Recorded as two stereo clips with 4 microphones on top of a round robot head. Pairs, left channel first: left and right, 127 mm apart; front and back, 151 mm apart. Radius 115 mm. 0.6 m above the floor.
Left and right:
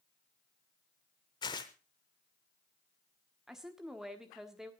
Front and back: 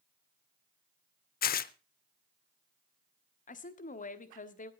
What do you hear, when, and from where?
1.4 s tearing paper: 25° left, 0.5 m
3.5 s a woman speaking: 5° right, 1.4 m